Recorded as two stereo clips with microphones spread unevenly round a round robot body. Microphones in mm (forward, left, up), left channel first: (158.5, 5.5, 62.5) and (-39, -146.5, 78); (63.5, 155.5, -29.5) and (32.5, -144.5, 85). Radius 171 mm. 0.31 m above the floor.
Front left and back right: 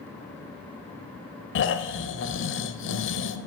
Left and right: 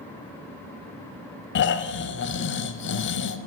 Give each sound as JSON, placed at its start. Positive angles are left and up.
{"t": 1.6, "sound": "snoring", "azimuth_deg": 65, "distance_m": 0.7}